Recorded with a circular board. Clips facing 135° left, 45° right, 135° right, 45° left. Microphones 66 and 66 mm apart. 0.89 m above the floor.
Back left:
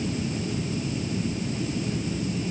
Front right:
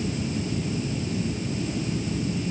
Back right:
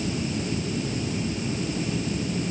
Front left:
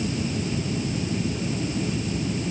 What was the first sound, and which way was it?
Only background noise.